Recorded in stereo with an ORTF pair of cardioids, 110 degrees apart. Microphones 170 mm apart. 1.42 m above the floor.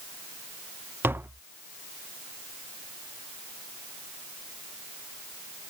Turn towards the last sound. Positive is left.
turn(degrees=-10)